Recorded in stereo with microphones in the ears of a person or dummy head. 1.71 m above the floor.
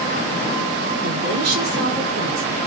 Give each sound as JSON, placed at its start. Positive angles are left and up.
{"t": 1.0, "sound": "a woman speaking", "side_deg": -70, "distance_m": 5.5}